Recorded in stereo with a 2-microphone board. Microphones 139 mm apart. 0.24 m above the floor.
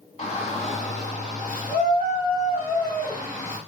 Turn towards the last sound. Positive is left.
turn(degrees=70)  # may be behind; listen again after turning